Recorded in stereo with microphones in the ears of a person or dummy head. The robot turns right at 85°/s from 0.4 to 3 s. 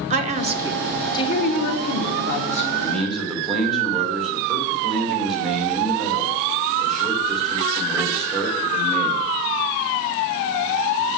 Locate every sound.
0.1 s a woman speaking: 35° right, 1.4 m; by 2.6 s 155° left, 1.4 m
2.7 s a man speaking: 20° left (ahead or behind), 1.8 m; by 9.2 s centre (ahead or behind), 1.8 m